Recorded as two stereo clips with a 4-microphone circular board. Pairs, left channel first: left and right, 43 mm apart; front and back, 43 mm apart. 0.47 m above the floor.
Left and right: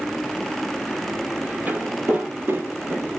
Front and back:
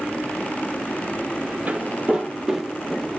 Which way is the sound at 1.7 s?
130° right.